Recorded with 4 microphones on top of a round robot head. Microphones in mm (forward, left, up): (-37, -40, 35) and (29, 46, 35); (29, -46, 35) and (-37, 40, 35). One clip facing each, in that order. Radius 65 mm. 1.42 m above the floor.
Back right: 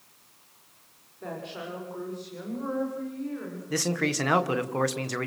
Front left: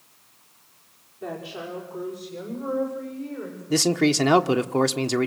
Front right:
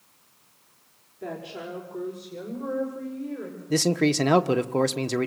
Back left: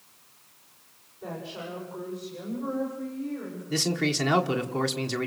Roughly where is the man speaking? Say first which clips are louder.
Front left 8 dB, front right 6 dB; ahead.